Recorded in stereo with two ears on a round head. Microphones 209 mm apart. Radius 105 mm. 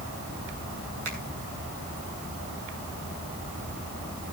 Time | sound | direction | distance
1.1 | a finger snap | 70° right (ahead or behind) | 6.5 m